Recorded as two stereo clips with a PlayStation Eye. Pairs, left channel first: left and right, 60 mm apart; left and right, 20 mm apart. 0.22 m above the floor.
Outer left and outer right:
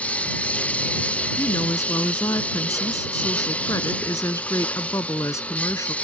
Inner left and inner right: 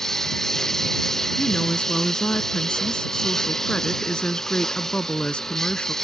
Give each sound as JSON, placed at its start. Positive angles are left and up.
{"t": 0.0, "sound": "a lawn mower", "side_deg": 20}
{"t": 1.4, "sound": "a woman speaking", "side_deg": 60}